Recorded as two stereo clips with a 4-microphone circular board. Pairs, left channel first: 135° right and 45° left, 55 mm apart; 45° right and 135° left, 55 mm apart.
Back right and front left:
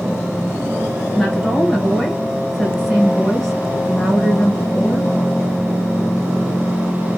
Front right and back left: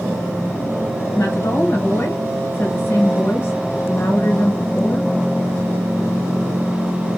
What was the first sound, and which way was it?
A woman speaking, 50° right.